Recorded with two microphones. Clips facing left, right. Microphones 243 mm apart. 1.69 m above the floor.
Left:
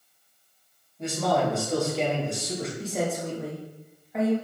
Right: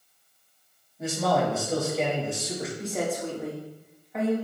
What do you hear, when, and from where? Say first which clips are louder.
1.0 s a man speaking: even; 5° right (ahead or behind), 3.5 m; by 2.7 s centre (ahead or behind), 2.5 m
2.8 s a woman speaking: even; centre (ahead or behind), 3.5 m